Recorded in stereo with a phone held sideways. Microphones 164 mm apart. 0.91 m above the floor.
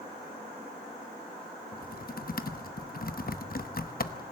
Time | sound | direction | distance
1.7 | typing on a keyboard | 65° left (ahead or behind) | 0.9 m